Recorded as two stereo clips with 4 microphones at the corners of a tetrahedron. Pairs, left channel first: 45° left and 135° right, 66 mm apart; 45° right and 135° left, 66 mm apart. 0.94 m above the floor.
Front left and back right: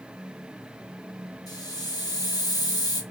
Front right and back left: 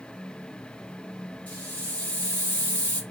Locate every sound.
1.5 s a hiss: 25° left, 1.1 m